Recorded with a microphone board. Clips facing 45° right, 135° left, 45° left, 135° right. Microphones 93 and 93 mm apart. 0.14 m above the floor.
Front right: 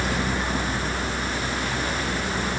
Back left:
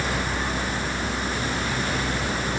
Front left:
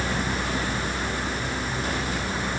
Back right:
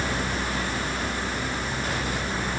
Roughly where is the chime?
I don't hear a chime.